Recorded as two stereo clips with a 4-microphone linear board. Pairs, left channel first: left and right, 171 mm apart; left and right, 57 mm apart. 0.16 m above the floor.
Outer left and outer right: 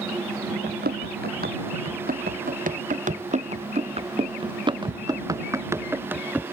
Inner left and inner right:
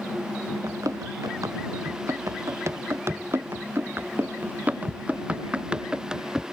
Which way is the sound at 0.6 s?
70° right (ahead or behind).